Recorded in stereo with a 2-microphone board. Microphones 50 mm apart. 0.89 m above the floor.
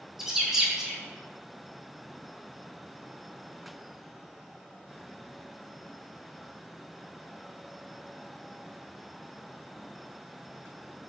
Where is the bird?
5° right (ahead or behind), 0.6 m.